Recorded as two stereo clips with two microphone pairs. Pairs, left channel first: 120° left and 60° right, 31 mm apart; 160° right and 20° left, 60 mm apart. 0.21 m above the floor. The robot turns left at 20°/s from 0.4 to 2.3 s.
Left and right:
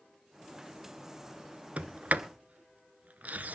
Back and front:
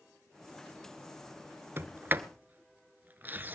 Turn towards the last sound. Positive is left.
turn(degrees=-35)